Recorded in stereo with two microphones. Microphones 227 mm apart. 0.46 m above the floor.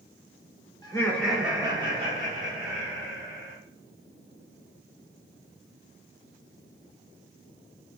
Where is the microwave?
No microwave in this recording.